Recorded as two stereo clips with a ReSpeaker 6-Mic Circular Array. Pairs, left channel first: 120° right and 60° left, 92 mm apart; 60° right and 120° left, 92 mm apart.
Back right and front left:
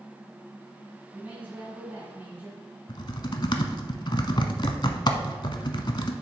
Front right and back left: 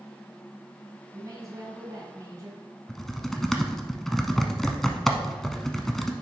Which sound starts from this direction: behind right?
Typing on a keyboard, at 2.9 s.